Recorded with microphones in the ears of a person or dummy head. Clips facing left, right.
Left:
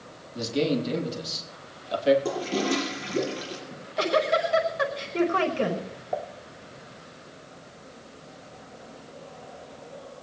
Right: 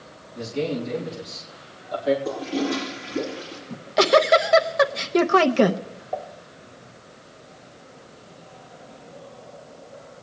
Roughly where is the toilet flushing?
Left.